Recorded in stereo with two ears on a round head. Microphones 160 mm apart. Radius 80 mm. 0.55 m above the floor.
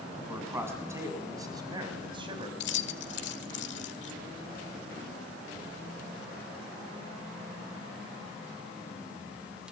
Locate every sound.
0.1 s a man speaking: 10° right (ahead or behind), 5.5 m; by 2.5 s 30° right (ahead or behind), 4 m
2.6 s keys jangling: 70° left (ahead or behind), 1.6 m